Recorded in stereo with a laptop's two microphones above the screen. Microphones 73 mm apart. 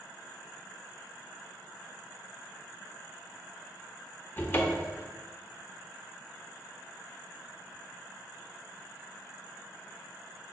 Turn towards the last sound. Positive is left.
turn(degrees=25)  # may be behind; listen again after turning